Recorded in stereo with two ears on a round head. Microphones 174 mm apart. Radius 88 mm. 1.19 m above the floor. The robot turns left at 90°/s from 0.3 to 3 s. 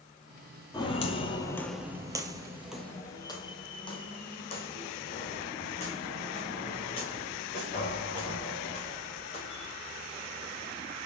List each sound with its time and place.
0.7 s footsteps: 20° left (ahead or behind), 1.5 m; by 9.7 s 35° left (ahead or behind), 7 m